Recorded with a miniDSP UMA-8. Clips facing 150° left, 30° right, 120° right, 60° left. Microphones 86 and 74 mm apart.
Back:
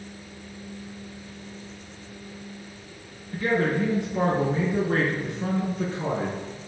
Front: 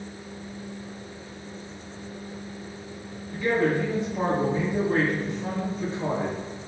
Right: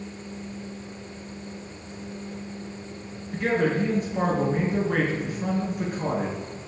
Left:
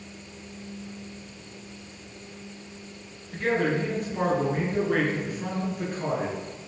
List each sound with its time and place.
3.3 s a man speaking: 155° left, 3.5 m